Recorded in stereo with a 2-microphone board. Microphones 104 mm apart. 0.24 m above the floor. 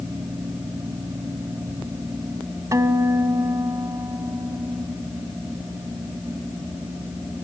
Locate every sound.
2.7 s a guitar: 30° right (ahead or behind), 1.1 m